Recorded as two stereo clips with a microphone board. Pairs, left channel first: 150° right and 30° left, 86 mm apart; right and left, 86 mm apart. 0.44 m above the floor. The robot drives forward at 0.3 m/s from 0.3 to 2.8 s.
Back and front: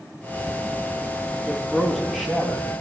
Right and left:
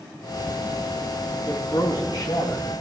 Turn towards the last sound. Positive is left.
turn(degrees=-60)